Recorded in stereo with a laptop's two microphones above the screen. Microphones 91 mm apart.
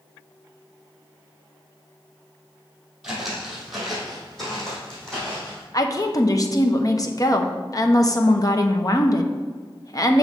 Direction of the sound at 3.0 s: 5° right (ahead or behind).